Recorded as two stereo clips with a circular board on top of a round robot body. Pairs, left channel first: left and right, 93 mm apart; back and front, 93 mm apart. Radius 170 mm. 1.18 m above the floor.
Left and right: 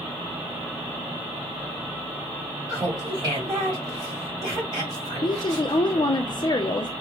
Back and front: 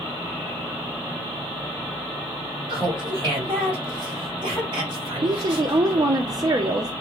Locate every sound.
2.7 s laughter: 35° right, 3.5 m
5.2 s a woman speaking: 50° left, 0.5 m